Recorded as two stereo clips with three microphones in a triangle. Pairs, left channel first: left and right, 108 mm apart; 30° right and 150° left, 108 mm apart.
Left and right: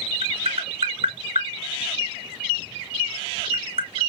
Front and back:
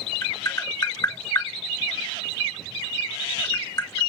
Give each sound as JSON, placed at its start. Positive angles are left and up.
{"t": 0.2, "sound": "tapping", "azimuth_deg": -80, "distance_m": 1.8}